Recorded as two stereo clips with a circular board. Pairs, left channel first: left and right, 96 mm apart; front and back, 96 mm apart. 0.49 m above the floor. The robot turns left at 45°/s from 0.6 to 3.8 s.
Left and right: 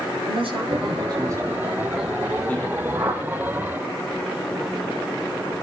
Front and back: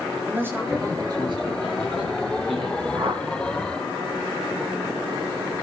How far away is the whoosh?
About 5 m.